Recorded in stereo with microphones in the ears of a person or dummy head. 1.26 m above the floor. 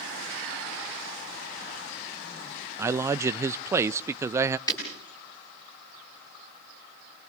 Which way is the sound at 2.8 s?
15° right (ahead or behind).